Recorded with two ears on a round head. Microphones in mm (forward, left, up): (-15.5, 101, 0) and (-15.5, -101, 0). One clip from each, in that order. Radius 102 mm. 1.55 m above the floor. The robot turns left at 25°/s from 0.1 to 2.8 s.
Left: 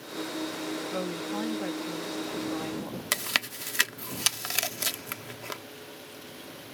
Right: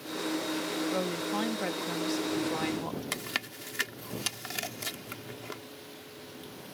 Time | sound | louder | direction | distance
0.9 | a woman speaking | right 1 dB | 5° right | ?
3.1 | chewing | left 9 dB | 35° left (ahead or behind) | ?